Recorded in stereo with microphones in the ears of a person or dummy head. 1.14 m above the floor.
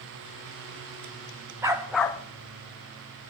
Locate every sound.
1.6 s a dog barking: 10° right (ahead or behind), 0.6 m; by 3.3 s 40° left (ahead or behind), 0.8 m